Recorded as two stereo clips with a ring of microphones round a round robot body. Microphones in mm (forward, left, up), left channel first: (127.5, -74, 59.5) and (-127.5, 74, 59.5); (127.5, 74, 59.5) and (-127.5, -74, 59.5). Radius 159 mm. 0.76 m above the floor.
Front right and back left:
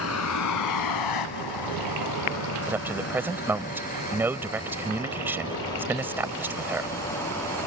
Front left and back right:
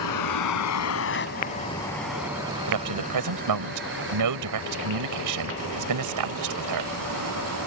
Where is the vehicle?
10° left; by 7.7 s 115° right.